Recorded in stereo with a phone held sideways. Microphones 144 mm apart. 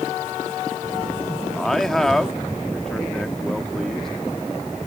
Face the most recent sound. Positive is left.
turn(degrees=5)  # may be behind; listen again after turning